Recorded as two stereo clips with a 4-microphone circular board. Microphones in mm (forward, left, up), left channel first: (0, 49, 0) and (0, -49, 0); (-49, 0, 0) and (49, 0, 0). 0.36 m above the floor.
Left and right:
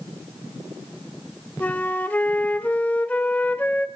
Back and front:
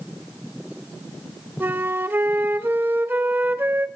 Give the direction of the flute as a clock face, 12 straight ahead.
11 o'clock.